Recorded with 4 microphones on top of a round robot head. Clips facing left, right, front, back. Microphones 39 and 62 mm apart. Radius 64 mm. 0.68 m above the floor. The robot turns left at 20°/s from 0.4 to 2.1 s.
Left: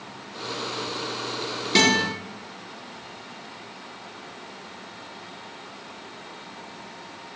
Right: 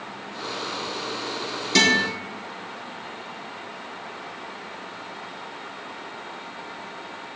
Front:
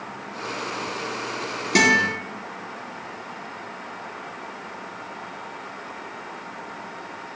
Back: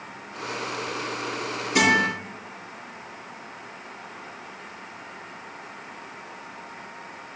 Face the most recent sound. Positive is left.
turn(degrees=5)